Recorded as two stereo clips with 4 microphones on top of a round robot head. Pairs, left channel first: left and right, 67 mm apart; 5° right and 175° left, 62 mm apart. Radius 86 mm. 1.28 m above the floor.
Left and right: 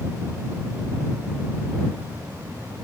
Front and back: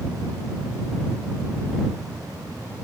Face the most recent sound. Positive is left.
No sound to turn to.